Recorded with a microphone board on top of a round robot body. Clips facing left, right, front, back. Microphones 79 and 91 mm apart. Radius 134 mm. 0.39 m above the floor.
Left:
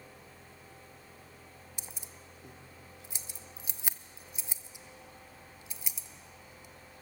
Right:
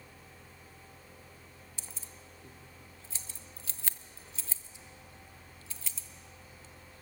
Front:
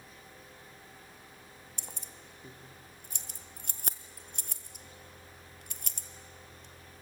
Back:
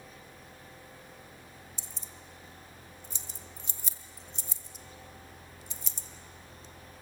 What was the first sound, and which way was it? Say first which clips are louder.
Keys jangling: left 1 dB, even; 15° left.